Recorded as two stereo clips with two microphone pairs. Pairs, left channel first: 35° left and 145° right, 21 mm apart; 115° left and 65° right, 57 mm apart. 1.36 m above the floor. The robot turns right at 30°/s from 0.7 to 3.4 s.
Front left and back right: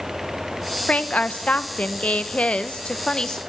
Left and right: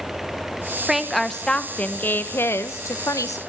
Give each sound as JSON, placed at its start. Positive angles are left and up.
{"t": 0.9, "sound": "a woman speaking", "azimuth_deg": 20, "distance_m": 1.4}